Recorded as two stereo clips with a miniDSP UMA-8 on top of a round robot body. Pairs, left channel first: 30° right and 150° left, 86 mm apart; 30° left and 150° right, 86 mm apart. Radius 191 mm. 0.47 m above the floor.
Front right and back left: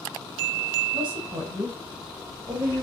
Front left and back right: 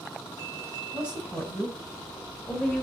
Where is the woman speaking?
135° left, 4 m; by 2.8 s 105° left, 3 m.